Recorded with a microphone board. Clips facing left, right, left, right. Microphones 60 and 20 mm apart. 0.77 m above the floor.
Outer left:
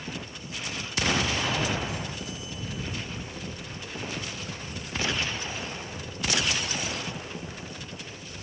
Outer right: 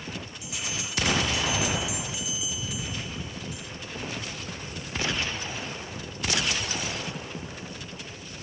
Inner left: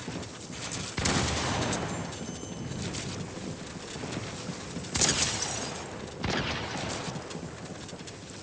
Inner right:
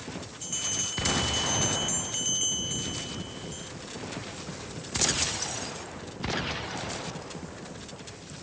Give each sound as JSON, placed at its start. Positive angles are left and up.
{"t": 0.4, "sound": "a bell", "side_deg": -85}